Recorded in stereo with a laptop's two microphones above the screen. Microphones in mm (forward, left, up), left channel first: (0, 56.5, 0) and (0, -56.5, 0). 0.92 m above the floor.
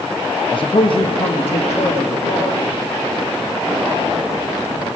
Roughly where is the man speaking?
Left.